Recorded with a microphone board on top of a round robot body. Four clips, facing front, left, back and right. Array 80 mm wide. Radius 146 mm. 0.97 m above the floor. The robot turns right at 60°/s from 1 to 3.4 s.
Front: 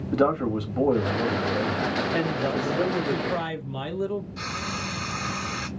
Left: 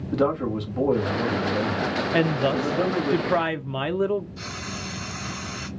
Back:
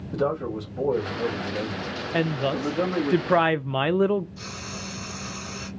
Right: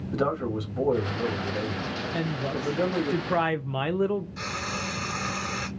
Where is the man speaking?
25° left, 1.9 m; by 3.1 s 150° left, 1.9 m.